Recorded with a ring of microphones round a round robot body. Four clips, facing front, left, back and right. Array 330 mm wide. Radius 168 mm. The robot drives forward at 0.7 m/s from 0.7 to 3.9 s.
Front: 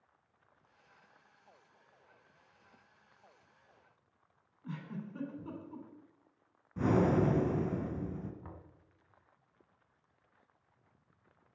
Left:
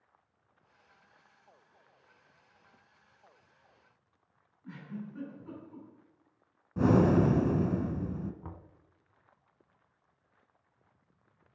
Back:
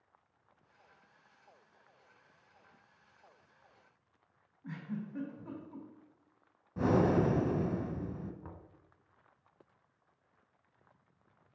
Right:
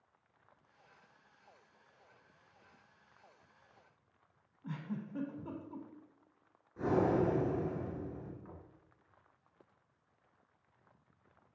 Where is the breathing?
100° left, 1.2 m.